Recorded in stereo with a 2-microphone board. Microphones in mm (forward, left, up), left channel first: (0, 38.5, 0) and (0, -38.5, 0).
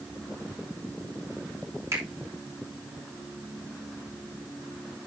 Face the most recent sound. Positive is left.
turn(degrees=-40)  # may be behind; listen again after turning